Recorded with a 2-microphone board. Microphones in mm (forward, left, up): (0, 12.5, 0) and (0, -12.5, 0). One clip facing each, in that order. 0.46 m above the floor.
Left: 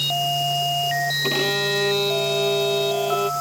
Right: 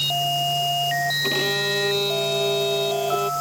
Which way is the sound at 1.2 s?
10° left (ahead or behind).